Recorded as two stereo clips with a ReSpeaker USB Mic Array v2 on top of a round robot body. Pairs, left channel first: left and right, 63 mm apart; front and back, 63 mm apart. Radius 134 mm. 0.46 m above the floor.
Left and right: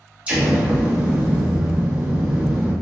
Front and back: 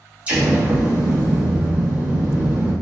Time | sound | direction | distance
0.3 | an explosion | 135° right | 1.1 m